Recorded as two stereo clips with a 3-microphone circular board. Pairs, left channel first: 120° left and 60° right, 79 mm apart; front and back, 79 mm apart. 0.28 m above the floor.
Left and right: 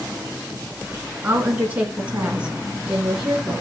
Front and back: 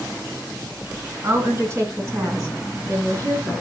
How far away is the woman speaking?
About 3.5 m.